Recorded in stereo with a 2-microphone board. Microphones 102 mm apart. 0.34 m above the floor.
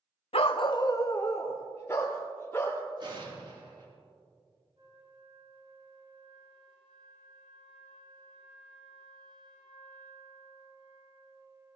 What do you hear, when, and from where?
0.3 s a dog barking: 75° left (ahead or behind), 0.6 m; by 2.8 s 20° left (ahead or behind), 3.5 m
3.0 s an explosion: 55° right (ahead or behind), 4.5 m
4.8 s a flute: 55° right (ahead or behind), 3.5 m